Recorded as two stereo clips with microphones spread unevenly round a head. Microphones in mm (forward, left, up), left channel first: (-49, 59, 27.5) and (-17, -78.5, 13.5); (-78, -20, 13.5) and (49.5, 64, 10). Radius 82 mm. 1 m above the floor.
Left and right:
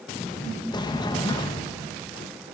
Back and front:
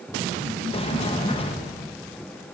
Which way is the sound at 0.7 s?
165° left.